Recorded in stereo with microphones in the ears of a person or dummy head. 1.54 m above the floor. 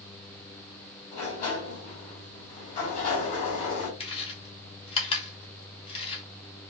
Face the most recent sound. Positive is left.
turn(degrees=30)  # may be behind; listen again after turning